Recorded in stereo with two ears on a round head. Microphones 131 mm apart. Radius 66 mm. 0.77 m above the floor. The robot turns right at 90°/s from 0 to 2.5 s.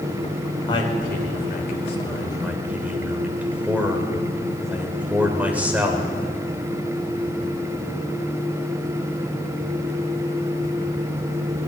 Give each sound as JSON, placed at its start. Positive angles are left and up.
{"t": 0.7, "sound": "a man speaking", "azimuth_deg": 25, "distance_m": 2.5}